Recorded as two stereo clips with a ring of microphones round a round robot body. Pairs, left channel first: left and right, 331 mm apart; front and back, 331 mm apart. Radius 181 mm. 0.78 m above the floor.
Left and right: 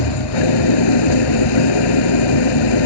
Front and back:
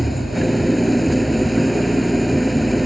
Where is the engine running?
90° left.